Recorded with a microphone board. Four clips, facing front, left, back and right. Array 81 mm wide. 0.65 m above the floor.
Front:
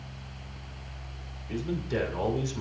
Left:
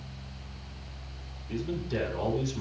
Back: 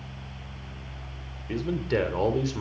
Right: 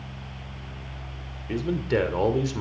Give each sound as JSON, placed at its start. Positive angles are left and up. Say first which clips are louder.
{"t": 1.5, "sound": "a man speaking", "louder": "right 7 dB, back 4 dB", "azimuth_deg": -120, "distance_m": 2.5}